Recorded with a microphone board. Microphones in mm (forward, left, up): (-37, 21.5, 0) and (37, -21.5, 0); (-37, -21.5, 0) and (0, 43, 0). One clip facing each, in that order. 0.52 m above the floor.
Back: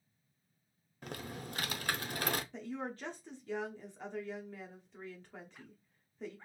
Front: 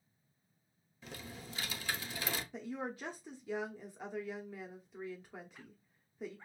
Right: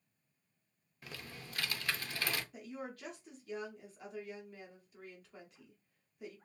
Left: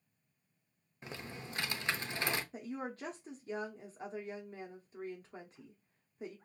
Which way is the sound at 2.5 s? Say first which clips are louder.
Even, left 4 dB; 45° left.